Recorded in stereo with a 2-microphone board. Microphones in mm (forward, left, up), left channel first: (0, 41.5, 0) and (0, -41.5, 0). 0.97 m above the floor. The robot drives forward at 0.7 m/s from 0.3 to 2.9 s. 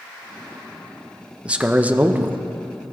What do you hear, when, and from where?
1.4 s a man speaking: 15° right (ahead or behind), 0.9 m; by 2.5 s 20° right (ahead or behind), 0.6 m